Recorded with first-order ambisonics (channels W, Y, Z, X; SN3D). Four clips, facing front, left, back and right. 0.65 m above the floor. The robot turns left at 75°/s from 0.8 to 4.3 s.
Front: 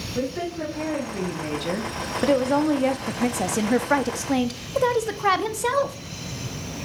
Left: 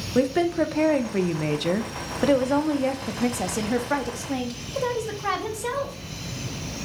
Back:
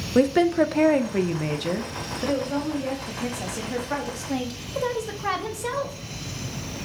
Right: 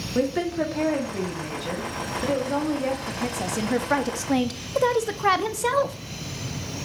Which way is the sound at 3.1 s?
45° left.